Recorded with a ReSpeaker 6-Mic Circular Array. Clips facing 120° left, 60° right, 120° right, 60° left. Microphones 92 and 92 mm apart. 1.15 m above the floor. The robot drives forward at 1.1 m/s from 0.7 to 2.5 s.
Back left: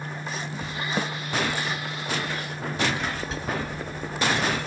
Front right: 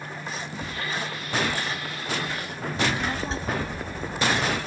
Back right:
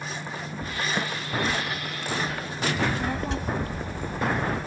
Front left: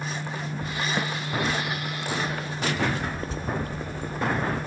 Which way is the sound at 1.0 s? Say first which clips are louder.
Back left 5 dB, front left 1 dB; 145° left.